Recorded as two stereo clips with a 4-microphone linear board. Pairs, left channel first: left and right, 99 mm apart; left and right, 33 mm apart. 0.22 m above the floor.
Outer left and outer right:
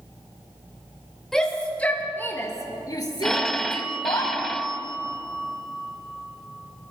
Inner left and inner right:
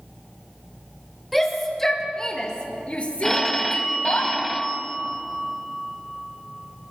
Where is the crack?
I don't hear a crack.